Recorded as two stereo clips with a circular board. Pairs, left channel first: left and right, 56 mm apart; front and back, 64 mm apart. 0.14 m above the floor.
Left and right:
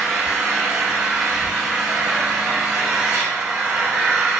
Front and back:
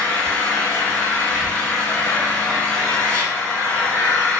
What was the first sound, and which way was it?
An engine running, 40° right.